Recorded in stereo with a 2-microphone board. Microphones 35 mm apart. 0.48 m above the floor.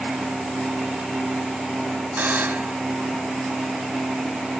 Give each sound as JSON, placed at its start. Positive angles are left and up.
{"t": 2.2, "sound": "a buzzer", "side_deg": -65}